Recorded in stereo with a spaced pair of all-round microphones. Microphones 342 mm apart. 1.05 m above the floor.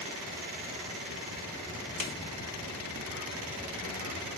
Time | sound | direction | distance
2.0 | a snare drum | 80° left | 1.1 m